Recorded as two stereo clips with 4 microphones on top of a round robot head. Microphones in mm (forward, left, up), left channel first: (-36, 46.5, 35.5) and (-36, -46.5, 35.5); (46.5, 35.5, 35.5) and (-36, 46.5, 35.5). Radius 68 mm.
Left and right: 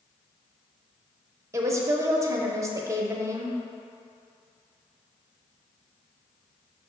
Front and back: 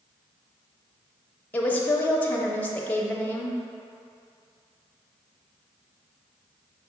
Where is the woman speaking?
65° right, 0.8 m.